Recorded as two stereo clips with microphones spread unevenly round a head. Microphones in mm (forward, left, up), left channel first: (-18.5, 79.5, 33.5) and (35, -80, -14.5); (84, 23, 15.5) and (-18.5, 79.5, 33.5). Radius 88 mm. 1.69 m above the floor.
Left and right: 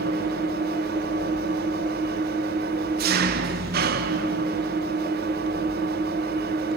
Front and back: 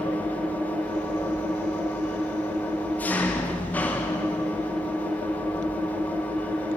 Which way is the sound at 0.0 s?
115° right.